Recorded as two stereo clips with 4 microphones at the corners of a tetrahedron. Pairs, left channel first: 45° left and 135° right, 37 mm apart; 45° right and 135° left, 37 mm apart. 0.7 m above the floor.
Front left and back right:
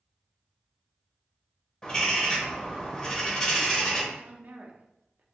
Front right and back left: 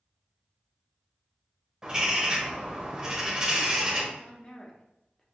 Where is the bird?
95° left, 1.1 m.